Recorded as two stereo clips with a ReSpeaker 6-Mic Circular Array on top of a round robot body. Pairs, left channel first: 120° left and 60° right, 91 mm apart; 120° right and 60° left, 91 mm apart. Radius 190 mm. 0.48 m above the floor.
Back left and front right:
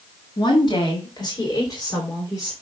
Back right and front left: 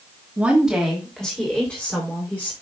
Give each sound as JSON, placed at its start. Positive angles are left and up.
{"t": 0.4, "sound": "a woman speaking", "azimuth_deg": 135, "distance_m": 2.5}